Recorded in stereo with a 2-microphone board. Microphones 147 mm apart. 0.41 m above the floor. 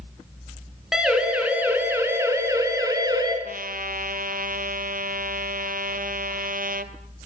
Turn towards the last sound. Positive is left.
turn(degrees=-70)  # may be behind; listen again after turning